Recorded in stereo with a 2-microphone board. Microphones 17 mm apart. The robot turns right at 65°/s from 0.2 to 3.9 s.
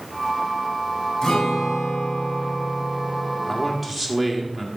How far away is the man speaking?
About 2 m.